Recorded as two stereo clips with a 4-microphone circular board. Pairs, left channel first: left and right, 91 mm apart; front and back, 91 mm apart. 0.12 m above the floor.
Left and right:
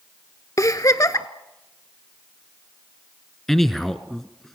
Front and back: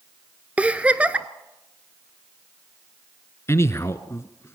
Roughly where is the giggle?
Behind left.